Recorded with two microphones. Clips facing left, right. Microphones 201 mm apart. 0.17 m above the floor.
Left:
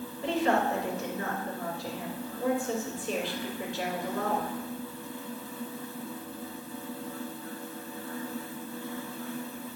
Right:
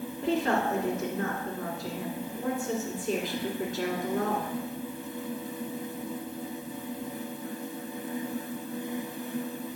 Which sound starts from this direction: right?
A woman speaking, at 0.2 s.